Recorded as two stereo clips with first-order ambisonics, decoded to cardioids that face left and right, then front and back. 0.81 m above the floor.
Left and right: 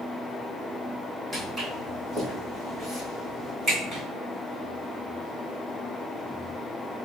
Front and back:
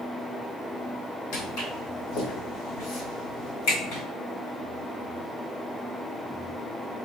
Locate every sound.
1.3 s footsteps: 5° right, 1.9 m; by 4.0 s 20° right, 3 m